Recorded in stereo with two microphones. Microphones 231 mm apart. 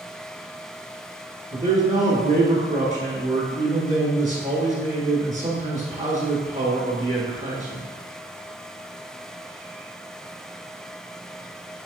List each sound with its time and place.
1.5 s a man speaking: 35° right (ahead or behind), 1.3 m